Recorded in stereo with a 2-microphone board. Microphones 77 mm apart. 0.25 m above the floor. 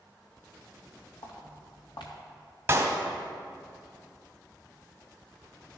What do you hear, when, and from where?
1.2 s footsteps: 80° left, 3 m
2.7 s a clap: 30° right (ahead or behind), 1.3 m